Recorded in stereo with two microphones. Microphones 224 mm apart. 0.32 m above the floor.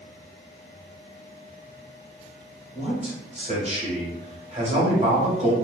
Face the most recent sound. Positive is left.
turn(degrees=-30)  # may be behind; listen again after turning